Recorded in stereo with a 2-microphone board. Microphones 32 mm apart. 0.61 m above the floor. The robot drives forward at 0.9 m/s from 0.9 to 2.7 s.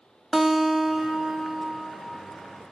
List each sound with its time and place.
0.3 s a guitar: 5° right (ahead or behind), 1.2 m; by 2.3 s centre (ahead or behind), 2.5 m